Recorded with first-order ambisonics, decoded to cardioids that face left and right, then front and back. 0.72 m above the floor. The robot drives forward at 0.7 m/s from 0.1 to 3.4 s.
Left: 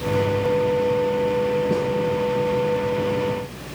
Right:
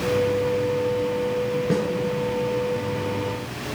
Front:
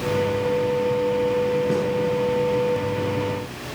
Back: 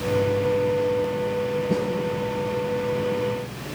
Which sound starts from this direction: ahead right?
A snare drum, at 1.7 s.